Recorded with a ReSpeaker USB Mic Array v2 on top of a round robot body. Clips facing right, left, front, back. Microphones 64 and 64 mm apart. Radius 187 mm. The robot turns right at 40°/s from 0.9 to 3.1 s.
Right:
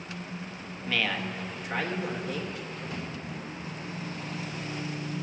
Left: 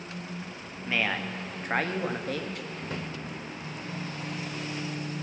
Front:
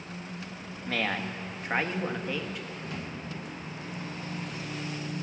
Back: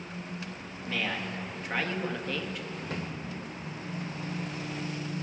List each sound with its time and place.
0.9 s a man speaking: 25° left, 1.4 m; by 2.7 s 95° left, 1.4 m
2.8 s a drawer: 125° left, 1.4 m; by 3.1 s 140° left, 1.4 m